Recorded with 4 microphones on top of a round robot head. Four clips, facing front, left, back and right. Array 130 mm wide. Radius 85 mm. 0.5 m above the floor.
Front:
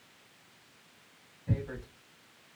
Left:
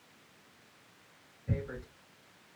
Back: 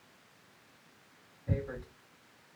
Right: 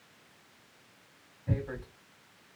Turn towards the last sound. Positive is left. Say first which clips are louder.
# right 3 dB, even
turn(degrees=-105)